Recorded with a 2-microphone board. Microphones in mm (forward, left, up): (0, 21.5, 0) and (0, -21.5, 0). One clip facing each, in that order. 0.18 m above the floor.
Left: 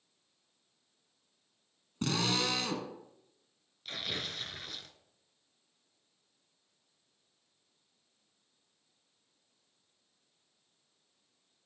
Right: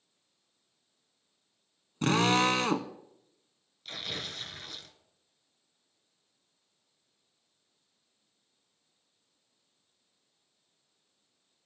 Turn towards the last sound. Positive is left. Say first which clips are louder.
# even
turn(degrees=0)  # may be behind; listen again after turning